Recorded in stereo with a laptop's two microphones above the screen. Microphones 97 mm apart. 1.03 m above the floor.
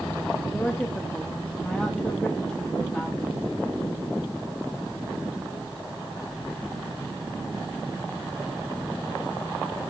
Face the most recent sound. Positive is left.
turn(degrees=10)  # may be behind; listen again after turning